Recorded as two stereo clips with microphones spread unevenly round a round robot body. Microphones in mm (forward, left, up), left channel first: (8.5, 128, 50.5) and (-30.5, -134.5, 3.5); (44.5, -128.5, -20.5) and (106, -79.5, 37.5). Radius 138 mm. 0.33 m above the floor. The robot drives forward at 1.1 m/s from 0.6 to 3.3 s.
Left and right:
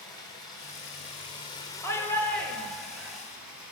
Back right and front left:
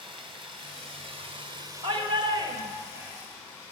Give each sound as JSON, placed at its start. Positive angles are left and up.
{"t": 0.0, "sound": "running water", "azimuth_deg": 0, "distance_m": 1.4}
{"t": 1.8, "sound": "a shout", "azimuth_deg": -5, "distance_m": 1.3}